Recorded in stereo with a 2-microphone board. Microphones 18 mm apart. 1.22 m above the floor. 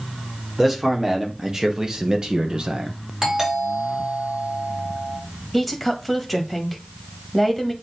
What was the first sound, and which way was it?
A man speaking, 15° right (ahead or behind).